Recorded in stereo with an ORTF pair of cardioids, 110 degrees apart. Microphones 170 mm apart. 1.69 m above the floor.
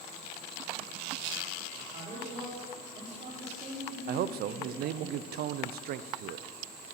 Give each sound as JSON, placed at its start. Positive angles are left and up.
{"t": 1.8, "sound": "a man speaking", "azimuth_deg": -45, "distance_m": 4.5}
{"t": 4.1, "sound": "a man speaking", "azimuth_deg": -65, "distance_m": 0.7}